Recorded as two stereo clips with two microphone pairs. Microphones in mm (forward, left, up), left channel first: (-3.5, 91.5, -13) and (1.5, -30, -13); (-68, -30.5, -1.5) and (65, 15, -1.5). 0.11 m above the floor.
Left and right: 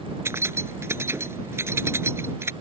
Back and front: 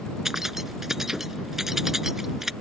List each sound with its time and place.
0.2 s keys jangling: 65° right